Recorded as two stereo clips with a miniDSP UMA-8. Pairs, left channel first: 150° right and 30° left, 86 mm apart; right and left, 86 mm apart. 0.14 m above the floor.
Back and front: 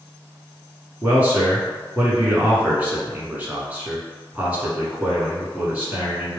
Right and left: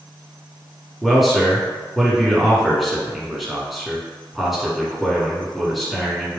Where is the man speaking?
5° left, 1.3 m.